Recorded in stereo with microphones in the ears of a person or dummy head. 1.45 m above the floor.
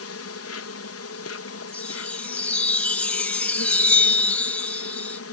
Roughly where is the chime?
Centre.